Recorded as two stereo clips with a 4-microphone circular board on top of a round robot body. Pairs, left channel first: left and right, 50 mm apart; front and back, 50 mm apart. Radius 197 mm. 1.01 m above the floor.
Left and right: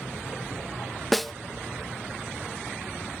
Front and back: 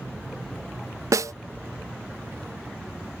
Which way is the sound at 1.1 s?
Straight behind.